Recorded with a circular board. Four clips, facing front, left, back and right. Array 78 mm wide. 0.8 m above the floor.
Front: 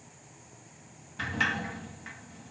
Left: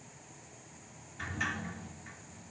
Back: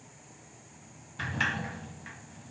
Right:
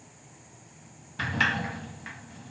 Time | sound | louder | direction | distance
1.2 | a sliding door | right 9 dB, front 1 dB | 90° right | 0.8 m